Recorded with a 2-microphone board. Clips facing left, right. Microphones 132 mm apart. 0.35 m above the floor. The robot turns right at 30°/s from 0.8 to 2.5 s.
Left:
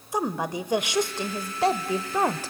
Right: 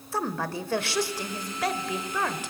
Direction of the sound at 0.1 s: 30° left.